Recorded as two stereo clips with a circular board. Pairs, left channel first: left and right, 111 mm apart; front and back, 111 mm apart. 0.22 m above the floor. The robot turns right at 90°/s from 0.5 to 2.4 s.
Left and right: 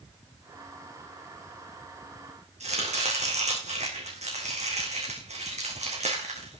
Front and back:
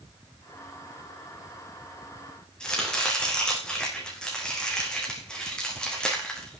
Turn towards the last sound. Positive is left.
turn(degrees=-85)